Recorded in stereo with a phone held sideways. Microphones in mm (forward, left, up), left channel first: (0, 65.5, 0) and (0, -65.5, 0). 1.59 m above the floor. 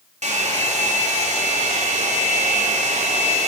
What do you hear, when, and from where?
0.2 s a hair dryer: 60° right (ahead or behind), 4 m